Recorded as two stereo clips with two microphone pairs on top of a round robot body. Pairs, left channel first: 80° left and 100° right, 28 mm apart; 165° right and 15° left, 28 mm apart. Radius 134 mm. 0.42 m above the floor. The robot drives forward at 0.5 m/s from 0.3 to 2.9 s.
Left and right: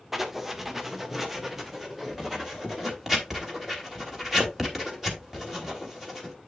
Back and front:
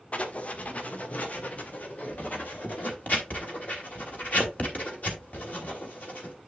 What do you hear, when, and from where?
0.1 s writing: straight behind, 1.7 m